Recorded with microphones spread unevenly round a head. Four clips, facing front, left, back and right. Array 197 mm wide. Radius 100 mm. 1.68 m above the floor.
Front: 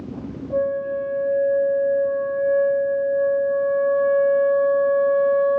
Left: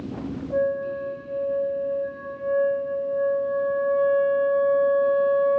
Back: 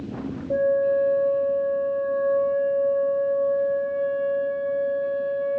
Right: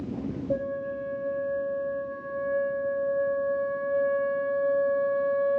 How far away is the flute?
About 2 m.